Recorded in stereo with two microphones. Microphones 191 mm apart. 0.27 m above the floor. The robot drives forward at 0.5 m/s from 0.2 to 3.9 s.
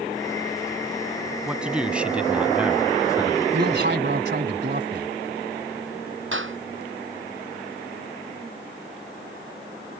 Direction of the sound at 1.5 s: 5° right (ahead or behind).